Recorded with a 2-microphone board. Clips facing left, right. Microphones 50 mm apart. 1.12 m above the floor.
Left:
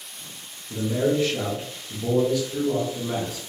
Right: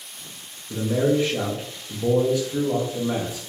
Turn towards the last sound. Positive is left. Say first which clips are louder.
# right 2 dB
turn(degrees=-20)  # may be behind; listen again after turning